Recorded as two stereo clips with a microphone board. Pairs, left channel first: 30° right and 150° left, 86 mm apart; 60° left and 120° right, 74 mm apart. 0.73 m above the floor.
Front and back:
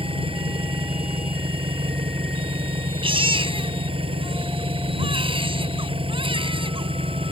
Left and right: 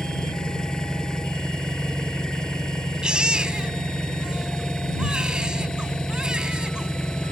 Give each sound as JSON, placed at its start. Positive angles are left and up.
{"t": 0.0, "sound": "an engine running", "azimuth_deg": 140}
{"t": 3.0, "sound": "a baby crying", "azimuth_deg": 160}